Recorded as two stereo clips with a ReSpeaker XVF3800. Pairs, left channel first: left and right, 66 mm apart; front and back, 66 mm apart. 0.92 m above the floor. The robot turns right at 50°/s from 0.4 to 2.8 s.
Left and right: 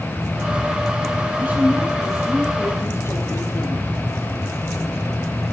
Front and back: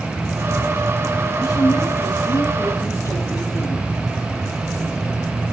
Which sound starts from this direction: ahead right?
A woman speaking, at 1.4 s.